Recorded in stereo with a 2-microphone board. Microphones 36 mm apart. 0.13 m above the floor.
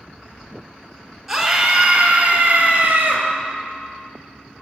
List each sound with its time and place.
1.3 s a scream: centre (ahead or behind), 1.4 m; by 3.3 s 50° right (ahead or behind), 1.7 m